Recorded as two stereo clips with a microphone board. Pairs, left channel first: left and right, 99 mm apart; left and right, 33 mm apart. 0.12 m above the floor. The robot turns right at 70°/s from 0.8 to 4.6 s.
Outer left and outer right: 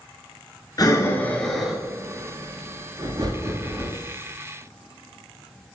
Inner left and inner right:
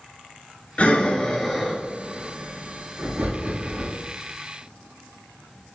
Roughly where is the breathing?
Left.